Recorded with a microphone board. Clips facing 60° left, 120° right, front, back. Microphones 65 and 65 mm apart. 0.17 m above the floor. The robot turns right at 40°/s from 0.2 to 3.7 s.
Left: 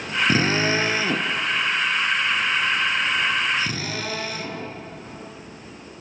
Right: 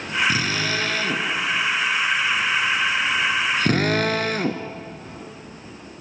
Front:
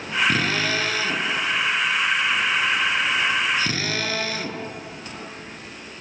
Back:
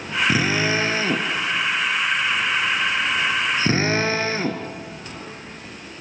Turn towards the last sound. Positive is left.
turn(degrees=-125)